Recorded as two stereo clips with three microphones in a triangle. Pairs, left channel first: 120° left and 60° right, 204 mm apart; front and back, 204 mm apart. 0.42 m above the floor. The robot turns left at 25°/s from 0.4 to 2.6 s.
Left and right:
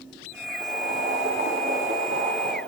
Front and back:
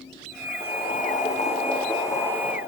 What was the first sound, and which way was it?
Boiling, 35° right.